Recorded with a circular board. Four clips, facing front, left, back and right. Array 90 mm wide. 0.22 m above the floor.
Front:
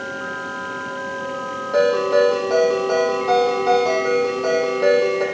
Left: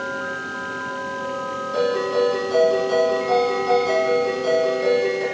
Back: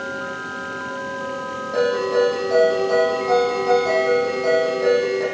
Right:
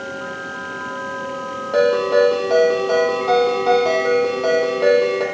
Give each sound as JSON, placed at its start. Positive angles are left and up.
{"t": 1.7, "sound": "a ringtone", "azimuth_deg": -75, "distance_m": 6.0}